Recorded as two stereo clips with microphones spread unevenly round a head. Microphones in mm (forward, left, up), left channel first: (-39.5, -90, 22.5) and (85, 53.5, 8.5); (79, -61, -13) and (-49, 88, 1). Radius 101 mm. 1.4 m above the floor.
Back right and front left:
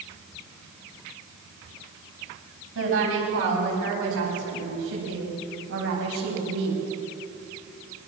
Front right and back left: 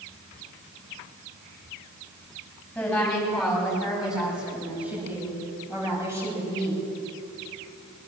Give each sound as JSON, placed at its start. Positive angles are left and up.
{"t": 2.8, "sound": "a woman speaking", "azimuth_deg": 35, "distance_m": 9.5}